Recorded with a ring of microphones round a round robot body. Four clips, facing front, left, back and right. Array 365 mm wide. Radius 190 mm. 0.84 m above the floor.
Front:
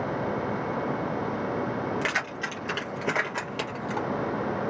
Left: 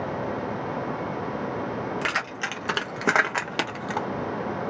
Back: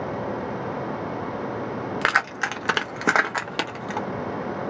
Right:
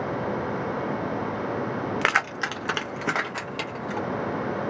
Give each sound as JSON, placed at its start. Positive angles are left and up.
{"t": 2.0, "sound": "keys jangling", "azimuth_deg": -140, "distance_m": 0.7}